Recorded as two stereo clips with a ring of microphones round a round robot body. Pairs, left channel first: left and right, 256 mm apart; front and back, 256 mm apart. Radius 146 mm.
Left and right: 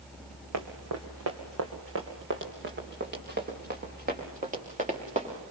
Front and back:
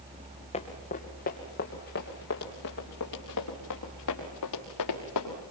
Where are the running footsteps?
70° right, 3 m; by 5.3 s 25° right, 5.5 m.